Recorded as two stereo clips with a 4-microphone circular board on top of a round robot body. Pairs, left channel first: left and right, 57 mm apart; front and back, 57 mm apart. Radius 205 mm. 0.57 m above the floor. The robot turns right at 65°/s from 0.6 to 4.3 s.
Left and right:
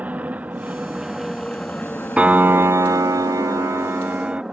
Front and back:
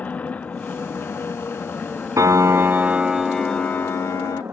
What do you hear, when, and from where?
0.0 s an aircraft: 45° right; by 4.5 s 165° right
2.2 s a piano: 160° right; by 4.4 s 25° right